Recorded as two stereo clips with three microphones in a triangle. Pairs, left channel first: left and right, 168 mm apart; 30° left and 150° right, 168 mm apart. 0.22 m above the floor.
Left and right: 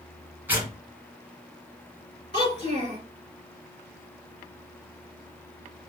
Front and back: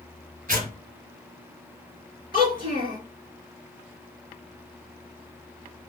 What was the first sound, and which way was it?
Tearing paper, 165° right.